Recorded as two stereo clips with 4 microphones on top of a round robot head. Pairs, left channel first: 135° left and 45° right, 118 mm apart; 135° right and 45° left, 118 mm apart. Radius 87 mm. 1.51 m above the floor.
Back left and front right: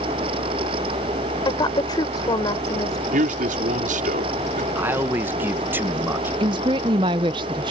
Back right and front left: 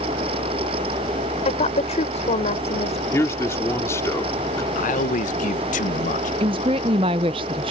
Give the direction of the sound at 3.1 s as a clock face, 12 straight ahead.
2 o'clock.